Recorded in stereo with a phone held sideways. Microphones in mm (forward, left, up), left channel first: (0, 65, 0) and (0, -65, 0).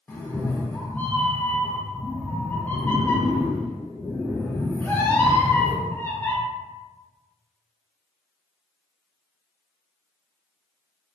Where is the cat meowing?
15° left (ahead or behind), 0.5 m.